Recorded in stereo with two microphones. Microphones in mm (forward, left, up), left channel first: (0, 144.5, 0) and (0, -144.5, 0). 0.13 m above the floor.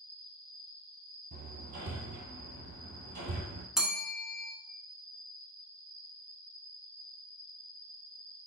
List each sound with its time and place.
0.0 s an insect: 55° left (ahead or behind), 1.5 m
1.3 s hammering: 75° right (ahead or behind), 0.9 m
3.8 s a bell: centre (ahead or behind), 0.6 m